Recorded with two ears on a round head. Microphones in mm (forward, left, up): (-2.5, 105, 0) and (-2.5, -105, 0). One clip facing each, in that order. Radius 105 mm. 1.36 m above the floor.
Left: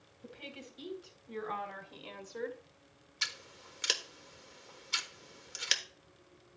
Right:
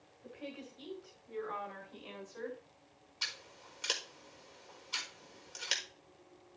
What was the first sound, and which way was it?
A woman speaking, 75° left (ahead or behind).